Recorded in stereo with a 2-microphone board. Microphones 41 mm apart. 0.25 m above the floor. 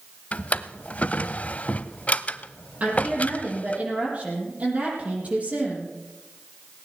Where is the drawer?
40° left (ahead or behind), 0.6 m.